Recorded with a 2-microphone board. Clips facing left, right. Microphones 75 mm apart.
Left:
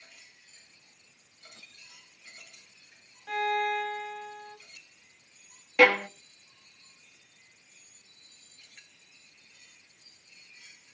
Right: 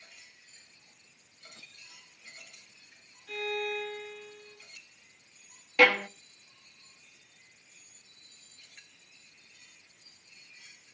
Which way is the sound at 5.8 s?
10° left (ahead or behind).